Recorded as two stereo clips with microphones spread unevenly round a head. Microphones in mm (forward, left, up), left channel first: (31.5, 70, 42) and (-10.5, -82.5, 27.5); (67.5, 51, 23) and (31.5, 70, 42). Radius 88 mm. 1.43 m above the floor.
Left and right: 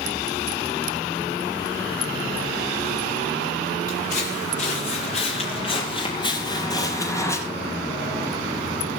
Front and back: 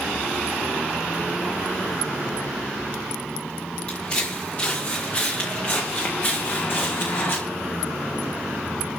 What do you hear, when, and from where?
3.9 s footsteps: 35° left, 7.5 m; by 7.4 s straight ahead, 6 m